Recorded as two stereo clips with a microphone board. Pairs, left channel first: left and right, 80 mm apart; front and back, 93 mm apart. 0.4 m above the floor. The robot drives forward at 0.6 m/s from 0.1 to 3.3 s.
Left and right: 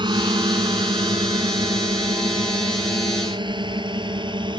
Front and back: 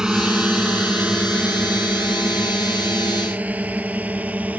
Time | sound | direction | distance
0.0 | a drone | 100° right | ?